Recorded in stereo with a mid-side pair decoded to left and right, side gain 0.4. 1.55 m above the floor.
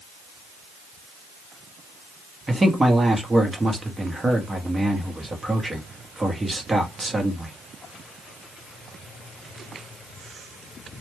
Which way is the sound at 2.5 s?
20° right.